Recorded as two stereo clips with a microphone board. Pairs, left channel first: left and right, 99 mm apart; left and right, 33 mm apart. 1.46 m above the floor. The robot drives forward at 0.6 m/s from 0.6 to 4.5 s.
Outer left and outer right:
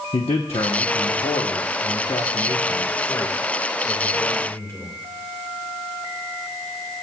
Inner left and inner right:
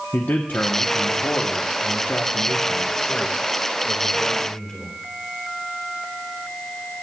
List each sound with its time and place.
0.1 s a man speaking: 70° left (ahead or behind), 1.0 m; by 4.9 s 25° left (ahead or behind), 2 m